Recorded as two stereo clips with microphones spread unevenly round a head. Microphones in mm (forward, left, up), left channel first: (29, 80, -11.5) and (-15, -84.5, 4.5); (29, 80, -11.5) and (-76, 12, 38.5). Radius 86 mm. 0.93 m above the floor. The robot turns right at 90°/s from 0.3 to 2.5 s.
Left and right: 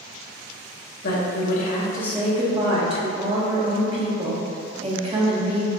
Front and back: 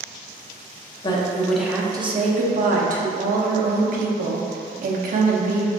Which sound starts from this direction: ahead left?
A woman speaking, at 1.0 s.